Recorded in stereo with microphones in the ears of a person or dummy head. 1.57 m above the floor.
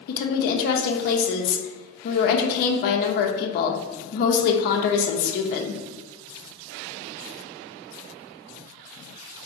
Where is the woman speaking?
55° left (ahead or behind), 0.5 m.